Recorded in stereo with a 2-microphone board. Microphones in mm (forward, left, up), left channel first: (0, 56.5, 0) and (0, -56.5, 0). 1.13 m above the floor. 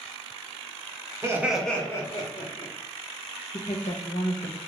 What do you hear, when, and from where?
1.2 s laughter: 25° right (ahead or behind), 0.7 m; by 2.7 s 45° left (ahead or behind), 1.3 m
3.5 s a woman speaking: 80° left, 0.7 m